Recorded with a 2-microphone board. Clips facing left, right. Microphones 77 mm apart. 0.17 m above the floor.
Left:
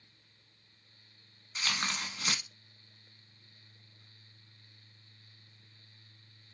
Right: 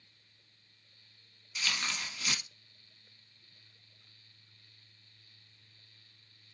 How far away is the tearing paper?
About 0.7 m.